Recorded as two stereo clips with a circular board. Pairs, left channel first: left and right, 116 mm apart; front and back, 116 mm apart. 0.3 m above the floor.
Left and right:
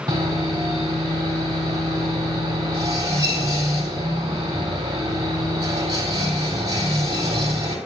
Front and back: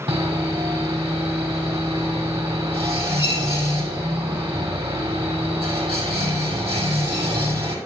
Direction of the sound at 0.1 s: 140° right.